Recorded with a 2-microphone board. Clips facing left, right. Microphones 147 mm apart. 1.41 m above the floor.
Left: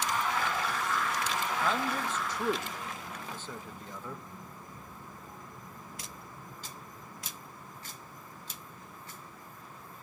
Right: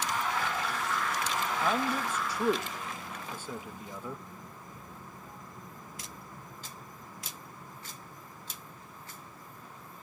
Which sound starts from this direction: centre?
A man speaking, at 1.6 s.